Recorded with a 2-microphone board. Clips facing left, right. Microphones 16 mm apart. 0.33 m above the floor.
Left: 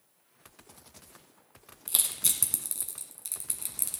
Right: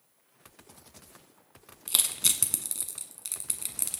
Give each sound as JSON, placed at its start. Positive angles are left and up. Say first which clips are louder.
{"t": 1.9, "sound": "crushing", "louder": "right 4 dB", "side_deg": -20, "distance_m": 1.3}